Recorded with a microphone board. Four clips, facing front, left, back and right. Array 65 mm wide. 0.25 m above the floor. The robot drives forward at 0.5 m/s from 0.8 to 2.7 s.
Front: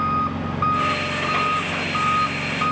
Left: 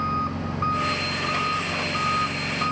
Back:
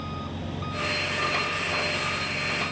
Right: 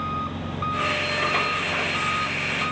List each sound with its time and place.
0.0 s an engine running: 15° left